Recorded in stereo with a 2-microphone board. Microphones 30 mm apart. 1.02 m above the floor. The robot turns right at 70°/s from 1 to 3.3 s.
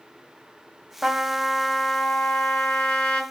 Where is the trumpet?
25° right, 1.2 m; by 3.2 s 130° left, 1.2 m.